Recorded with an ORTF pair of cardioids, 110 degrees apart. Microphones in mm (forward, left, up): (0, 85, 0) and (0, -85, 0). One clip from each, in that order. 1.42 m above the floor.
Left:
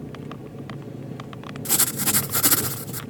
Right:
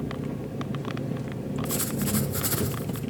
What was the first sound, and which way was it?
An engine running, 20° right.